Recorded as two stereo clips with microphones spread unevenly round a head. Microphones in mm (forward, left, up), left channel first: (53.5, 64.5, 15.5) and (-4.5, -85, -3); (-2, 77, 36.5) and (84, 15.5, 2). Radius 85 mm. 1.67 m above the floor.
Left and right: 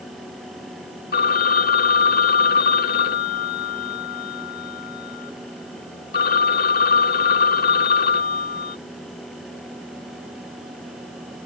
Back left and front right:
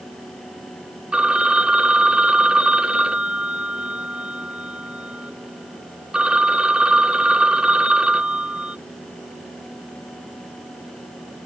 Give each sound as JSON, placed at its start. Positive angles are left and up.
{"t": 1.1, "sound": "a phone ringing", "azimuth_deg": 55}